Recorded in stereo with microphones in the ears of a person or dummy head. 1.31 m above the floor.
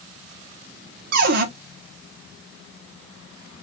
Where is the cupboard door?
55° right (ahead or behind), 0.6 m.